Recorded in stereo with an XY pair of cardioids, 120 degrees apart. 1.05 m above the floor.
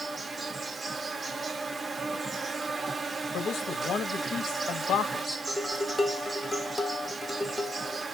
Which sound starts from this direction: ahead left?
A man speaking, at 3.3 s.